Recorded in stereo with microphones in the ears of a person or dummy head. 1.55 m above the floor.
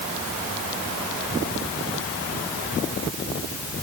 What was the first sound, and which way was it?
Only background noise.